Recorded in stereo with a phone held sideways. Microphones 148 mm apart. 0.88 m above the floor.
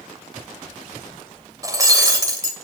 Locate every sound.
1.6 s breaking glass: 25° right (ahead or behind), 2.5 m